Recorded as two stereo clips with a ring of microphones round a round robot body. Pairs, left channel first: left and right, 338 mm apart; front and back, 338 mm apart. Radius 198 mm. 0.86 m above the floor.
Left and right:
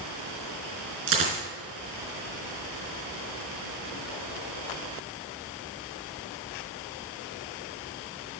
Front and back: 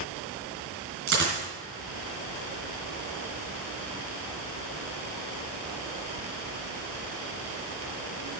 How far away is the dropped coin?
About 3.5 m.